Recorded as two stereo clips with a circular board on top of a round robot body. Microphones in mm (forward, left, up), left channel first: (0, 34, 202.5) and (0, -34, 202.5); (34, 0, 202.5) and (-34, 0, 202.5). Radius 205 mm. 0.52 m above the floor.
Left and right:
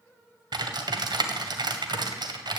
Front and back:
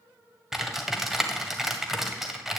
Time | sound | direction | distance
0.5 | typing on a keyboard | 95° right | 1.7 m